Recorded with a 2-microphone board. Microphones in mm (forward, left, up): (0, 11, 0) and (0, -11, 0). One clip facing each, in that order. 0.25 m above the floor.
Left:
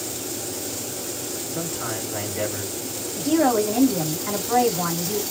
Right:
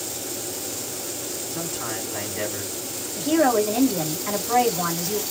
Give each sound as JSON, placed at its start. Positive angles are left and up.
{"t": 1.5, "sound": "a man speaking", "side_deg": -10, "distance_m": 2.5}
{"t": 3.2, "sound": "a woman speaking", "side_deg": -20, "distance_m": 1.4}